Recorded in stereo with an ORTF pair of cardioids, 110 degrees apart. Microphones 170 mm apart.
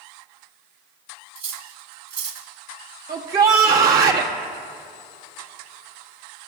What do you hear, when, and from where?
1.4 s cutlery clinking: 40° right, 2.5 m
3.1 s a shout: 60° right, 2.0 m